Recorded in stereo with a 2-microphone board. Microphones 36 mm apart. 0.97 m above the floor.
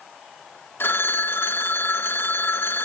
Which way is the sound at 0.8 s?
70° left (ahead or behind).